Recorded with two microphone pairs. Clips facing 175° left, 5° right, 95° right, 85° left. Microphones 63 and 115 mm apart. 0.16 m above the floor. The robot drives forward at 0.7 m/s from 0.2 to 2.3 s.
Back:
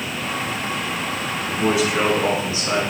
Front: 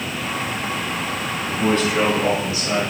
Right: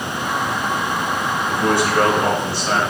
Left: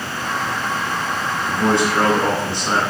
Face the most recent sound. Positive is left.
turn(degrees=135)